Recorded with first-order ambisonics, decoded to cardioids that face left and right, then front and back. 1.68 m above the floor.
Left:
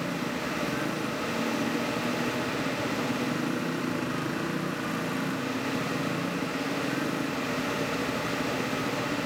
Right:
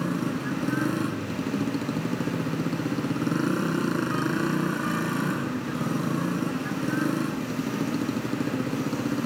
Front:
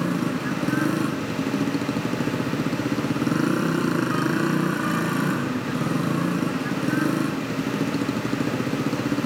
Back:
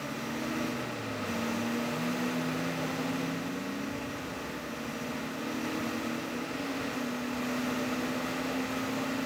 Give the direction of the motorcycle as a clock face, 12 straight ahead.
1 o'clock.